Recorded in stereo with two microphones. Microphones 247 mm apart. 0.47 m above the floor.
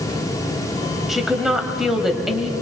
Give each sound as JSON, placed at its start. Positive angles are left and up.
{"t": 1.1, "sound": "a woman speaking", "side_deg": 0, "distance_m": 3.0}